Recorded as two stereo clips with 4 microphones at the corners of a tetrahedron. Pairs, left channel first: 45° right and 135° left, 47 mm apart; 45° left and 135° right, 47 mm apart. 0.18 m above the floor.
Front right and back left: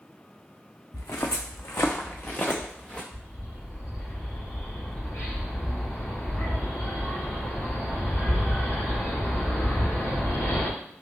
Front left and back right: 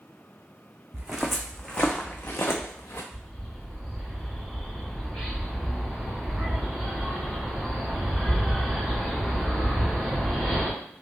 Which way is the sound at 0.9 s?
65° right.